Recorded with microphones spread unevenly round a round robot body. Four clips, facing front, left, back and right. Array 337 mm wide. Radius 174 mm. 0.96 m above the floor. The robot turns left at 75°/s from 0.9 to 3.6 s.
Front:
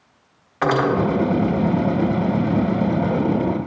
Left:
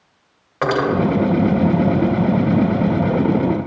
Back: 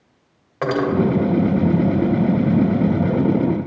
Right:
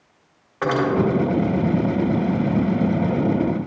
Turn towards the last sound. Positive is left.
turn(degrees=-100)